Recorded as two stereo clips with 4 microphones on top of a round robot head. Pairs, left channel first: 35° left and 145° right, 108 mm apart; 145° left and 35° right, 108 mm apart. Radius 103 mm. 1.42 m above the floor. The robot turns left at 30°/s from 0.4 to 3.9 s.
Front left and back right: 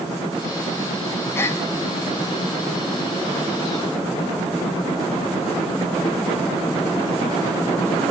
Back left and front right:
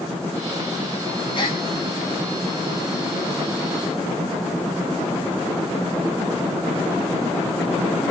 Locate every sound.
1.4 s a gasp: 100° left, 0.9 m; by 1.6 s 95° left, 0.9 m